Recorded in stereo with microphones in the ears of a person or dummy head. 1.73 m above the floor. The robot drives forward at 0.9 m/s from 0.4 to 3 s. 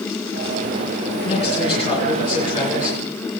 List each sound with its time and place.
1.2 s a man speaking: 35° left (ahead or behind), 4.5 m; by 3.0 s 25° left (ahead or behind), 6 m